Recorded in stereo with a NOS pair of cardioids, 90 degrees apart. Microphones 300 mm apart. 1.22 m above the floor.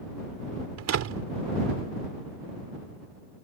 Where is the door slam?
60° right.